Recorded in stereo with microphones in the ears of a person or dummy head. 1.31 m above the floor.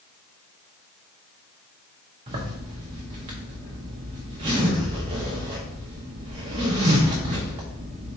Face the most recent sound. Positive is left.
turn(degrees=-20)  # may be behind; listen again after turning